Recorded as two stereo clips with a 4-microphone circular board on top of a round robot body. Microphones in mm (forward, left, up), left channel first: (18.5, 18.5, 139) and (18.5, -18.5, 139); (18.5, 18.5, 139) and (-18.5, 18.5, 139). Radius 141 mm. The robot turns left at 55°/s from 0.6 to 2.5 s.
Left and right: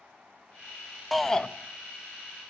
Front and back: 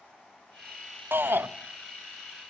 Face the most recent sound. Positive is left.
turn(degrees=100)